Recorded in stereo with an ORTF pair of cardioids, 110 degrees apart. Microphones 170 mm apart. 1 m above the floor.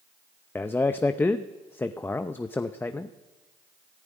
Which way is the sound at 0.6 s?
10° left.